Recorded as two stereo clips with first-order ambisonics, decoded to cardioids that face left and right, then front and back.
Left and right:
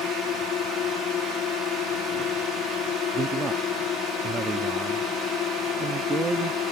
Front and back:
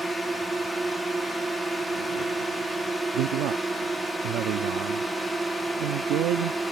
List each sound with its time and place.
0.0 s a drone: 110° left
3.1 s a man speaking: 160° right